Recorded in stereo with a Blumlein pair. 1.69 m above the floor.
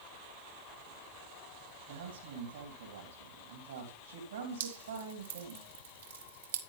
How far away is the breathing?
No breathing in this recording.